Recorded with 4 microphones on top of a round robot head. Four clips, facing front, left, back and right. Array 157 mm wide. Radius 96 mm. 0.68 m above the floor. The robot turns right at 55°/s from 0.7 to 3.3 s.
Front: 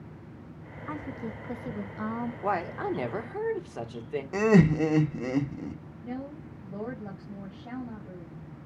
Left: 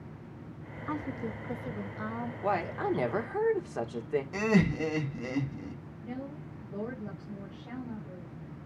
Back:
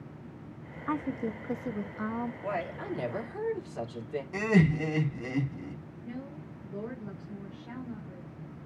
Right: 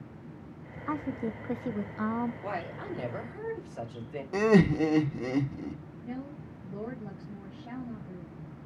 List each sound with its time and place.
0.9 s a woman speaking: 145° right, 0.7 m; by 2.3 s 65° right, 0.7 m
2.4 s a woman speaking: 20° left, 1.6 m; by 4.2 s 70° left, 1.6 m
4.3 s laughter: 35° right, 1.1 m
6.0 s a woman speaking: straight ahead, 5.5 m